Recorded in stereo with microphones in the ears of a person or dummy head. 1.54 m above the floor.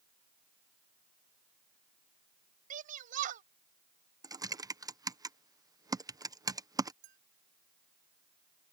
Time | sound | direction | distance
2.7 | a shout | 50° right (ahead or behind) | ?
4.2 | typing on a keyboard | 20° right (ahead or behind) | ?
7.0 | a clink | 60° right (ahead or behind) | ?